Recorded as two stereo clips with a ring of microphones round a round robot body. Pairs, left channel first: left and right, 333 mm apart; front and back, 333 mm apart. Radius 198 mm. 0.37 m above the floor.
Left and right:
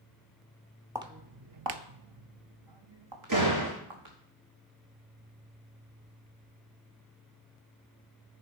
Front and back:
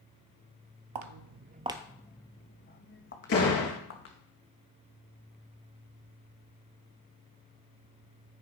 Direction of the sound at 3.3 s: 45° right.